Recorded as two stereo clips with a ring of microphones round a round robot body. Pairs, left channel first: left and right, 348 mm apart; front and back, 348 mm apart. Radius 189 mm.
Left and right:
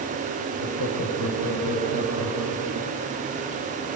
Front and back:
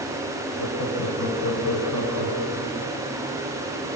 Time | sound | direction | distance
0.6 | laughter | 40° right | 8.5 m